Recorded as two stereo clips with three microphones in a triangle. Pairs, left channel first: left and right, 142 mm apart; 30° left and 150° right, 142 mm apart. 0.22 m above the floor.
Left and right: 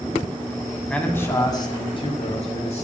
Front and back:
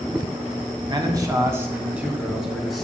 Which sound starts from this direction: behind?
A man speaking, at 0.9 s.